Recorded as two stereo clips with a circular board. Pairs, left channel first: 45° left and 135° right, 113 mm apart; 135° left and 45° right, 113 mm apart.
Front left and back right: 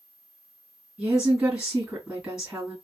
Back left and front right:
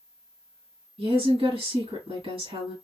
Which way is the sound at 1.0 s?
55° right.